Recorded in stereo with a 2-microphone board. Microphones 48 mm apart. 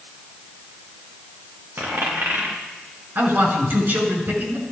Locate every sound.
1.8 s a dropped coin: 50° right (ahead or behind), 4.5 m
3.1 s a man speaking: 45° right (ahead or behind), 4.5 m